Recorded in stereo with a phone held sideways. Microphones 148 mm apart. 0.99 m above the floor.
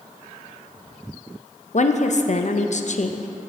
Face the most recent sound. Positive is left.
turn(degrees=55)  # may be behind; listen again after turning